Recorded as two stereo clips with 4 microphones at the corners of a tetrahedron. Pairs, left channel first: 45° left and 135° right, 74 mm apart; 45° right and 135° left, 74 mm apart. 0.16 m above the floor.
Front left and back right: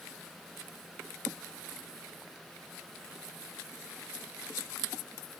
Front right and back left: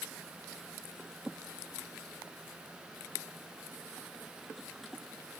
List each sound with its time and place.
Only background noise.